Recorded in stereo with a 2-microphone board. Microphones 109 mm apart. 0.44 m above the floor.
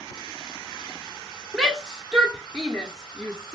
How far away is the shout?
About 1.4 m.